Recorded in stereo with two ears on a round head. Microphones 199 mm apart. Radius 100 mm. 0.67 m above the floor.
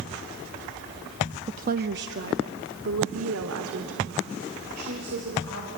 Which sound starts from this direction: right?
A woman speaking, at 1.5 s.